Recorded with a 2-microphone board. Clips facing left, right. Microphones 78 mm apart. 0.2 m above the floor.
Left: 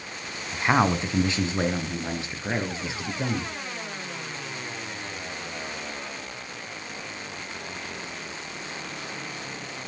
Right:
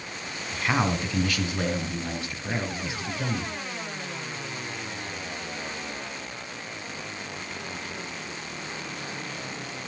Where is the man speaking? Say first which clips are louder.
Left 4 dB; 25° left (ahead or behind), 1.6 m.